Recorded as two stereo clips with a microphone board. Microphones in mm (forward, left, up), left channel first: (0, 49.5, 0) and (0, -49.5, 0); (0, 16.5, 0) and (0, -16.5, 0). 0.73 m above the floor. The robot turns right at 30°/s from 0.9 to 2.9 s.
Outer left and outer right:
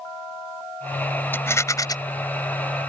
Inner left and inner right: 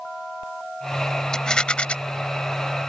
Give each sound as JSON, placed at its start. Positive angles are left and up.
{"t": 1.3, "sound": "a rattle", "side_deg": 20}